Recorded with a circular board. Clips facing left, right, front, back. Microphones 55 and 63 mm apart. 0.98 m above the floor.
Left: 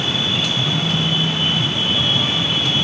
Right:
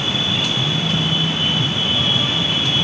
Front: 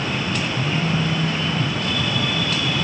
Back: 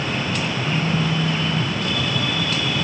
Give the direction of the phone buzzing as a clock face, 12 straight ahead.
12 o'clock.